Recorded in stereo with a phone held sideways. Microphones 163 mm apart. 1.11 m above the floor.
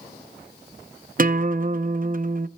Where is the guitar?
55° right (ahead or behind), 0.6 m.